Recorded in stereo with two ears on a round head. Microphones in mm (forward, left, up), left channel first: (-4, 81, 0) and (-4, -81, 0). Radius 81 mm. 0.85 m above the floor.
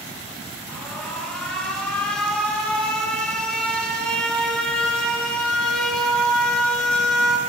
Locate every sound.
0.7 s an alarm: 5° left (ahead or behind), 1.3 m